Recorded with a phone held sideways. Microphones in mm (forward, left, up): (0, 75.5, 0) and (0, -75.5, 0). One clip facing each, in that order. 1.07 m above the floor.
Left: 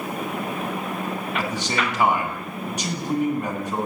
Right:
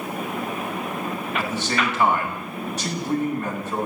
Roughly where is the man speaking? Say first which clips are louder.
Right 2 dB; centre.